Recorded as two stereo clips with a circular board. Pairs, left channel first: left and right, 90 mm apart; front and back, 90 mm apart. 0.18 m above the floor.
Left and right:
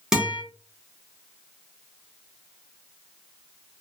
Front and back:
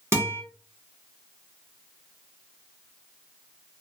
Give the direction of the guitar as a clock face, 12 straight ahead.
6 o'clock.